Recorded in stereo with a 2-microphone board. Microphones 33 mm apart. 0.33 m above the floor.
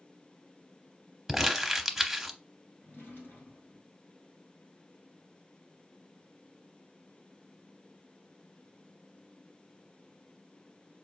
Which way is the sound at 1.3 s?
5° right (ahead or behind).